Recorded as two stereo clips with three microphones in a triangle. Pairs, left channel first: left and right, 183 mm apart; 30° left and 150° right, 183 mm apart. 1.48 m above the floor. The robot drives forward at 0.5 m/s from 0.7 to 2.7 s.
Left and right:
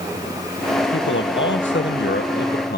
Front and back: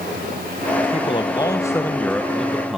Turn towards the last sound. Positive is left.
turn(degrees=125)